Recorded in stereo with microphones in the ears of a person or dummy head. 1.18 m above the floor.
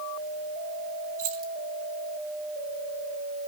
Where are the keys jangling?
85° right, 2.5 m.